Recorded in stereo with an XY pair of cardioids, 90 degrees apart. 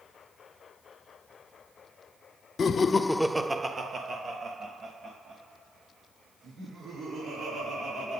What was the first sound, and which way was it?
Laughter, 55° left.